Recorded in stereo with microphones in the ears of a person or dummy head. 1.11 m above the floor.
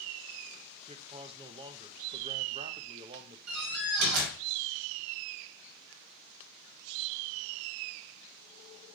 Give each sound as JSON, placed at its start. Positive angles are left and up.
{"t": 0.9, "sound": "a man speaking", "side_deg": -30, "distance_m": 0.7}
{"t": 3.5, "sound": "a door slam", "side_deg": -85, "distance_m": 3.0}